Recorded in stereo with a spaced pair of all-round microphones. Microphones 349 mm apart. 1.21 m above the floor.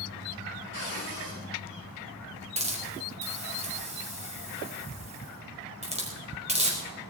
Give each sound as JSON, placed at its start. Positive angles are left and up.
{"t": 0.7, "sound": "a cupboard door", "side_deg": -85, "distance_m": 8.5}
{"t": 2.6, "sound": "a hiss", "side_deg": -20, "distance_m": 4.5}